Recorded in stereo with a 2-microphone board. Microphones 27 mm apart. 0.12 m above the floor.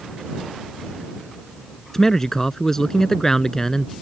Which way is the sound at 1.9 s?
15° left (ahead or behind).